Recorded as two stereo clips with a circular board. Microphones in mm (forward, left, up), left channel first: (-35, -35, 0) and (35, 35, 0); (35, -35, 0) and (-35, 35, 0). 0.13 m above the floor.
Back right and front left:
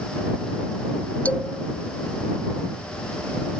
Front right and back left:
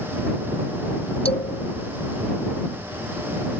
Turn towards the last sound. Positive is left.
turn(degrees=-60)